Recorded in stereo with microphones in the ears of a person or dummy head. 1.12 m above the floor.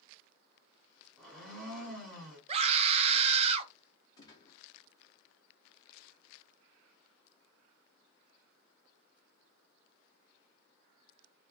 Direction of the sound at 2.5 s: 35° right (ahead or behind).